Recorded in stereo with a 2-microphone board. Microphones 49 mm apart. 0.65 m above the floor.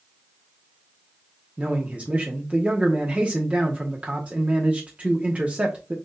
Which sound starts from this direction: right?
A man speaking, at 1.6 s.